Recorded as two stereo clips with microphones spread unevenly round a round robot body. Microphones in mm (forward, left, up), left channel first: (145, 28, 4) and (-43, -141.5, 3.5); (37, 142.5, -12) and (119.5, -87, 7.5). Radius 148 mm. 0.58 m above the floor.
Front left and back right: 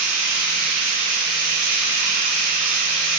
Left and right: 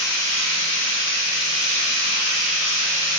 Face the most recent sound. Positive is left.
turn(degrees=160)